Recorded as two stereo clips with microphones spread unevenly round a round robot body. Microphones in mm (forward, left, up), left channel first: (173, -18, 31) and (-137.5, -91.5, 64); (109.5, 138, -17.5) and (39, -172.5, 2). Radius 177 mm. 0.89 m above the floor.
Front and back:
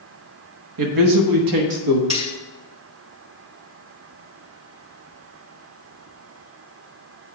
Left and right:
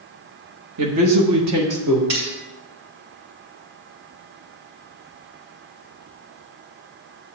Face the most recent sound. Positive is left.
turn(degrees=-95)